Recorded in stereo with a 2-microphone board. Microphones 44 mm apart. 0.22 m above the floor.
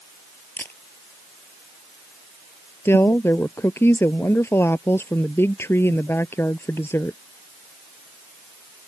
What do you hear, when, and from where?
0.6 s a camera shutter: 50° left (ahead or behind)
2.9 s a woman speaking: 75° left (ahead or behind)